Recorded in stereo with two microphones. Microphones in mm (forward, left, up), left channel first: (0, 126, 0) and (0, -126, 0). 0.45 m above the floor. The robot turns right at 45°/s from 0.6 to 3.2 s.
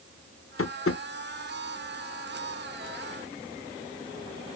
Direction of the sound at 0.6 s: 60° left (ahead or behind).